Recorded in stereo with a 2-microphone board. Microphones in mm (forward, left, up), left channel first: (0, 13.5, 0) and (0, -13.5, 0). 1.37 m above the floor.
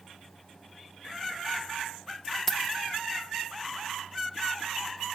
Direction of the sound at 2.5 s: 15° left (ahead or behind).